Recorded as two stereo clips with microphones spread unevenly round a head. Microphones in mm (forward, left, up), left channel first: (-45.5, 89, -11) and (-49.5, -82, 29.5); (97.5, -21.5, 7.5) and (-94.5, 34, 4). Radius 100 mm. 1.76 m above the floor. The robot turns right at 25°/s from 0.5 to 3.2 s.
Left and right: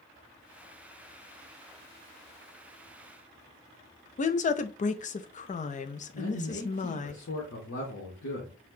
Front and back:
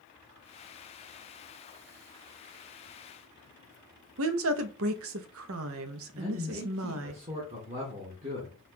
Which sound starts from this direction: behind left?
A woman speaking, at 4.2 s.